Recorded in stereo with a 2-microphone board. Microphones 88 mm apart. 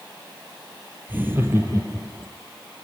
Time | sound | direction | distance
1.1 | laughter | 20° right (ahead or behind) | 3 m